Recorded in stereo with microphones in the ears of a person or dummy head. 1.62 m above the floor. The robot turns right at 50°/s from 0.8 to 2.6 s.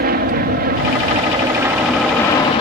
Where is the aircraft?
60° right; by 2.6 s 30° left.